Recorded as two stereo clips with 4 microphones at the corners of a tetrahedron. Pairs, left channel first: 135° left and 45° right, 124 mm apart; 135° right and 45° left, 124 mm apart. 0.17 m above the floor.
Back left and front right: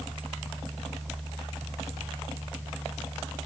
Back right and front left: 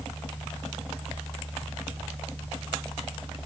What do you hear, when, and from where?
Only background noise.